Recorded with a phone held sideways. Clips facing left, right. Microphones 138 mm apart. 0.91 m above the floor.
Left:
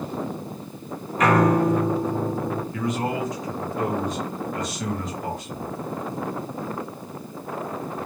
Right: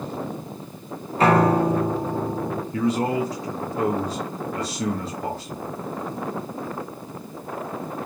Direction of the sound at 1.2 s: 30° right (ahead or behind).